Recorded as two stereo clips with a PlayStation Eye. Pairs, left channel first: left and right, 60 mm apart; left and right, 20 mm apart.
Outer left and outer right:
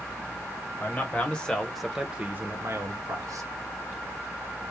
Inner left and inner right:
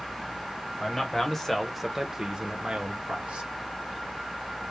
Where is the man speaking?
30° left (ahead or behind), 1.1 m; by 3.5 s 70° right (ahead or behind), 0.9 m.